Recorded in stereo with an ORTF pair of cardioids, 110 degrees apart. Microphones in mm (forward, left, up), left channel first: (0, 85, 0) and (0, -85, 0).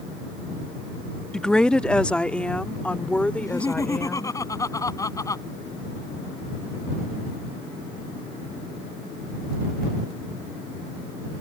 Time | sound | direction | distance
1.3 | a woman speaking | 5° left | ?
3.4 | laughter | 20° left | ?